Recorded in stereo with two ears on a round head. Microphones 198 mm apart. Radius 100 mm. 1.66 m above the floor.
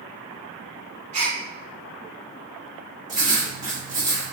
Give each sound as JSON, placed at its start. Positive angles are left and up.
{"t": 1.1, "sound": "a gasp", "side_deg": -30, "distance_m": 1.3}
{"t": 3.1, "sound": "writing", "side_deg": -20, "distance_m": 1.8}